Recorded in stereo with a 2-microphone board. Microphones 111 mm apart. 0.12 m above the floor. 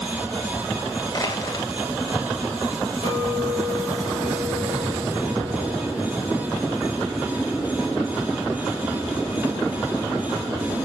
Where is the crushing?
35° left (ahead or behind), 2 m.